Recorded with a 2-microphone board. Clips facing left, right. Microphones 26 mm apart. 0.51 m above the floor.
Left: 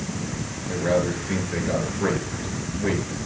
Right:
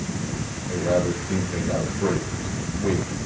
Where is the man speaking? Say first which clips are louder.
Even; 65° left (ahead or behind), 7 m.